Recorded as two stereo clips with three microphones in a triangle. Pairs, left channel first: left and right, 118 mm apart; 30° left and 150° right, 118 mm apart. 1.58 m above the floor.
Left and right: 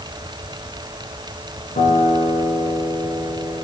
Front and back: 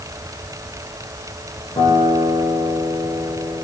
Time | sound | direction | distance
1.8 | a guitar | 80° left | 6.5 m